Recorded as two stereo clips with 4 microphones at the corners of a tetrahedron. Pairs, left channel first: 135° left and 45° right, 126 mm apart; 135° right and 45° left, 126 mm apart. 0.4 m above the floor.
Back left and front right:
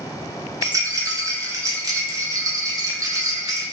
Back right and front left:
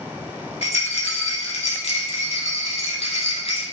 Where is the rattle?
105° right, 0.6 m.